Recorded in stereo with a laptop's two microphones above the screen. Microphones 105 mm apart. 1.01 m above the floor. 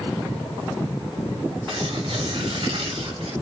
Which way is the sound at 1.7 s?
60° right (ahead or behind).